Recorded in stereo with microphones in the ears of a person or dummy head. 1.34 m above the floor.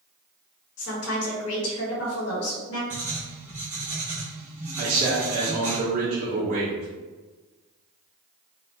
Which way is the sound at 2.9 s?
10° right (ahead or behind).